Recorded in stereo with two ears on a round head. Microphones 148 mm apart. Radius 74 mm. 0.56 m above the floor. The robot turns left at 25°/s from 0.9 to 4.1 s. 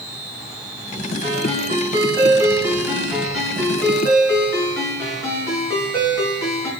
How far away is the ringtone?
About 5 m.